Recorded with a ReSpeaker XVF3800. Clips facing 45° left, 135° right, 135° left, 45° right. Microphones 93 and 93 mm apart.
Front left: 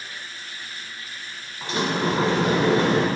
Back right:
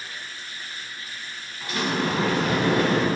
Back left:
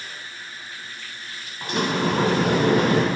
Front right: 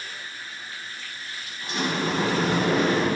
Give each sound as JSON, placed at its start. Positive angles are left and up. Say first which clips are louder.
{"t": 1.6, "sound": "a sliding door", "louder": "front left 2 dB, back left 4 dB", "azimuth_deg": 110, "distance_m": 0.7}